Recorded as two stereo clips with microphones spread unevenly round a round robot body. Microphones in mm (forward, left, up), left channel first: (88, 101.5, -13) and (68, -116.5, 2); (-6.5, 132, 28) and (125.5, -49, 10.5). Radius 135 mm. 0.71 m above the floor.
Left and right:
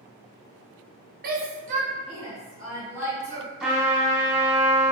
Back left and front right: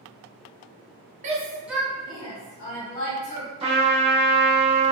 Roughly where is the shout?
Right.